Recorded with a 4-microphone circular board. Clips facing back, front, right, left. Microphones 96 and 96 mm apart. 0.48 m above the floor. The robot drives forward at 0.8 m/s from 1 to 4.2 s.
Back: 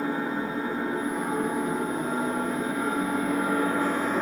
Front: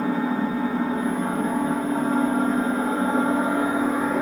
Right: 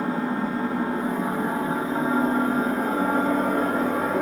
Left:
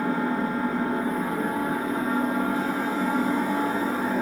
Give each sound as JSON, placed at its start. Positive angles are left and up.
{"t": 0.0, "sound": "an engine running", "azimuth_deg": -25, "distance_m": 3.0}